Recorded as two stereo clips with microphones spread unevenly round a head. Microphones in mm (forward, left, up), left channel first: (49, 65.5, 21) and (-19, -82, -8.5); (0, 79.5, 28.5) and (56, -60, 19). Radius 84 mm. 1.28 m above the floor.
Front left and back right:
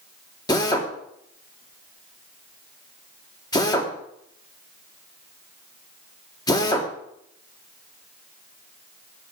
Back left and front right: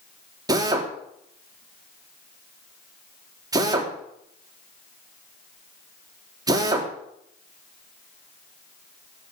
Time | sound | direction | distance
0.5 | a drill | 5° right | 3 m